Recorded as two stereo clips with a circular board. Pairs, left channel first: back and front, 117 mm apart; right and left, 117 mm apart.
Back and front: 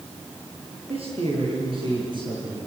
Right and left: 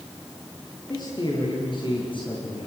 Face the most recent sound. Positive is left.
turn(degrees=-55)